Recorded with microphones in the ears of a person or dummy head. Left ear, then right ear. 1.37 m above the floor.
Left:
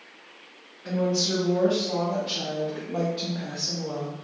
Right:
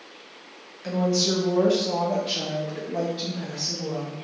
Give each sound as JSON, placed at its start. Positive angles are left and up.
{"t": 0.8, "sound": "a woman speaking", "side_deg": -60, "distance_m": 1.2}